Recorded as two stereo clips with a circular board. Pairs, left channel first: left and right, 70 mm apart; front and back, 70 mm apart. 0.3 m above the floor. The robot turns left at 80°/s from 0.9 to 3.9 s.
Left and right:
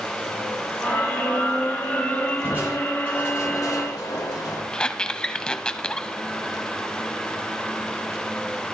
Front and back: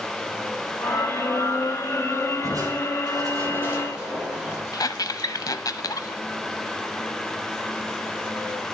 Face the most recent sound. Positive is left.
turn(degrees=15)